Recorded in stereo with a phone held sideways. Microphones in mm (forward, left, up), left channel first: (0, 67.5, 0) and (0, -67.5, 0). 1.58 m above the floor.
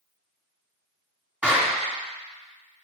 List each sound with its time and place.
1.4 s a clap: 10° right (ahead or behind), 3 m